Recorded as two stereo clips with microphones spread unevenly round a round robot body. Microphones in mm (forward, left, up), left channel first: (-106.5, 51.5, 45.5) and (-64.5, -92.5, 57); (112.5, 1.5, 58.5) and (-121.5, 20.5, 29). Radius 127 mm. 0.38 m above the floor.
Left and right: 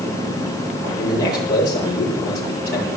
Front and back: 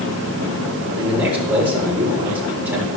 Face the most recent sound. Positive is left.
turn(degrees=95)